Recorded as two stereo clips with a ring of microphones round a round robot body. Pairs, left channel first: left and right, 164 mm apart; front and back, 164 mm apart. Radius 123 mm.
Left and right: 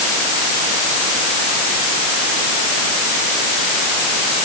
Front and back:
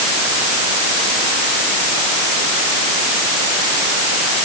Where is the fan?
I don't hear a fan.